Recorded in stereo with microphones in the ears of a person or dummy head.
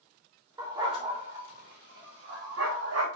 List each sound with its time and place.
0.6 s a dog barking: 15° right (ahead or behind), 2.5 m; by 3.1 s 70° right (ahead or behind), 4 m